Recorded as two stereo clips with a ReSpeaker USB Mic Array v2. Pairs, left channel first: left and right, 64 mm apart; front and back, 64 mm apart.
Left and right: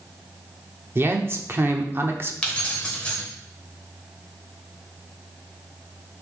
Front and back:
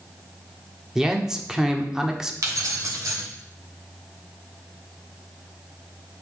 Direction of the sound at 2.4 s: 160° left.